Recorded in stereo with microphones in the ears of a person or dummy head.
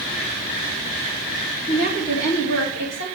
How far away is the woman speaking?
About 3 m.